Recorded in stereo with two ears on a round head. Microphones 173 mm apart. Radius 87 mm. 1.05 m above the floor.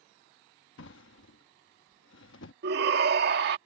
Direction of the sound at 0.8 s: 70° left (ahead or behind).